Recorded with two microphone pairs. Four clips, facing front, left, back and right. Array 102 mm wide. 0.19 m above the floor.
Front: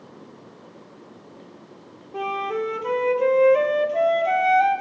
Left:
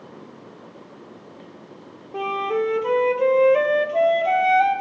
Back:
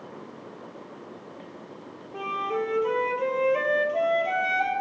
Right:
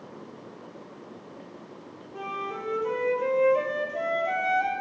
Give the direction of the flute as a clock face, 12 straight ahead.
9 o'clock.